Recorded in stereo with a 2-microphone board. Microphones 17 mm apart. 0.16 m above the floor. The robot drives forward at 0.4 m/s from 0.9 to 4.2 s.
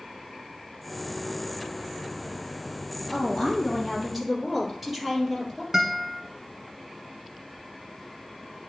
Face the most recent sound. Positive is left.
turn(degrees=-30)  # may be behind; listen again after turning